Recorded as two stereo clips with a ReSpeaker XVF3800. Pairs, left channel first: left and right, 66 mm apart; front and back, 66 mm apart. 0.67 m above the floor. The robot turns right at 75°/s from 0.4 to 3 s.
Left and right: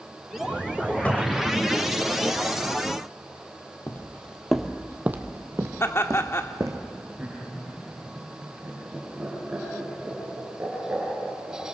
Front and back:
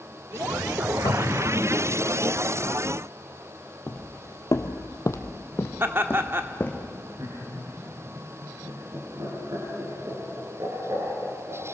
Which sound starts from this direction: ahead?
A cupboard door, at 1.1 s.